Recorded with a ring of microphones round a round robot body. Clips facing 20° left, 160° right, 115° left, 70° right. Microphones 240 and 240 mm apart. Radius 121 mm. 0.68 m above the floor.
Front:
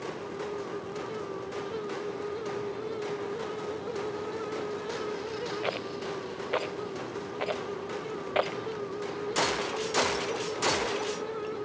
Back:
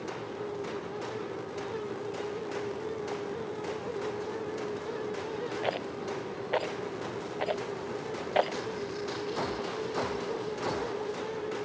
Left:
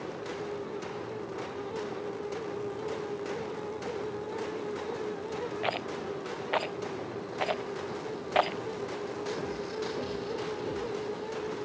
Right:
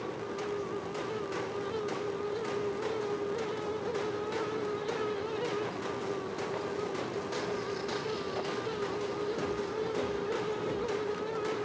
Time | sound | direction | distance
5.6 | a rattle | 105° left | ?